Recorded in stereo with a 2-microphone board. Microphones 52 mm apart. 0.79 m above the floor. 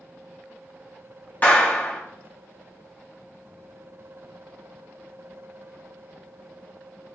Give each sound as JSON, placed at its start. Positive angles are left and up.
{"t": 1.4, "sound": "a clap", "side_deg": 30, "distance_m": 1.4}